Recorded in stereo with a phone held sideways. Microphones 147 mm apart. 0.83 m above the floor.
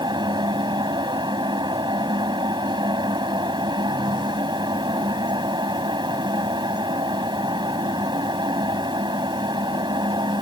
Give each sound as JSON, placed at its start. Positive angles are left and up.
{"t": 0.0, "sound": "a fan", "side_deg": -30}